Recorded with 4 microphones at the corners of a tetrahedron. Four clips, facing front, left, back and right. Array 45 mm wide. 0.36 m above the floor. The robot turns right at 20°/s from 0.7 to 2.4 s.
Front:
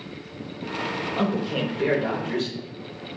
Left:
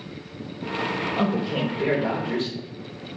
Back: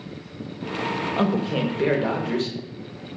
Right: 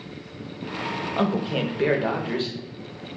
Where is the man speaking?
135° right, 0.9 m; by 2.6 s 110° right, 0.9 m.